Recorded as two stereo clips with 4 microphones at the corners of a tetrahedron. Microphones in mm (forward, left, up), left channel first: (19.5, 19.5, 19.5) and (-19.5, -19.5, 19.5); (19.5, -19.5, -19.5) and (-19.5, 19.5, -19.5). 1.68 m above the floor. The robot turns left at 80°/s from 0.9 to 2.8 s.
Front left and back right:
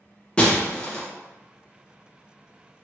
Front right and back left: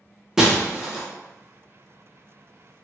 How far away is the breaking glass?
About 0.8 m.